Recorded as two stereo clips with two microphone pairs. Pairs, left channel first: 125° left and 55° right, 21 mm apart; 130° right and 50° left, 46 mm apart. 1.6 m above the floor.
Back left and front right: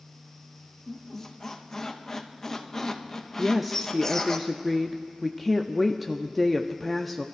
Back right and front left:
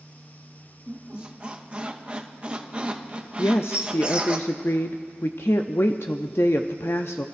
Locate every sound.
0.9 s a squeak: 90° left, 0.9 m
3.4 s a woman speaking: 145° right, 0.5 m